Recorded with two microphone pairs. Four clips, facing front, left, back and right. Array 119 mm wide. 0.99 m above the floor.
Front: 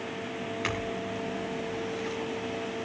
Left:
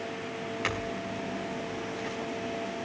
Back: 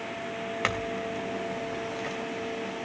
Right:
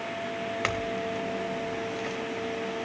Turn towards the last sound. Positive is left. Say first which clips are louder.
# right 4 dB, back 3 dB
turn(degrees=-140)